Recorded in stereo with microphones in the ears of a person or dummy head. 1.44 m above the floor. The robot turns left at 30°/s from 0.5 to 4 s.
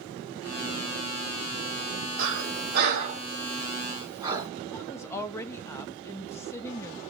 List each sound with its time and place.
2.2 s breathing: 70° right (ahead or behind), 0.8 m; by 4.5 s 20° right (ahead or behind), 0.8 m
4.7 s a woman speaking: 15° left (ahead or behind), 0.5 m